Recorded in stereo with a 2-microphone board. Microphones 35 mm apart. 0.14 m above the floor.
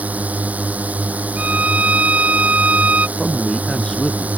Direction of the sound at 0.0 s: 50° right (ahead or behind).